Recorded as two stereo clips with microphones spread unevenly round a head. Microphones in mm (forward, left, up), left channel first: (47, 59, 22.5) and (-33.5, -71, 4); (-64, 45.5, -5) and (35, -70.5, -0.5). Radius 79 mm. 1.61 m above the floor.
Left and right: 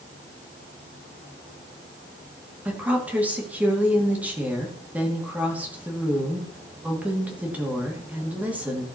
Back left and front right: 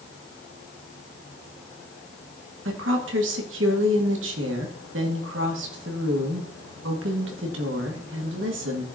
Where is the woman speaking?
40° right, 2.5 m.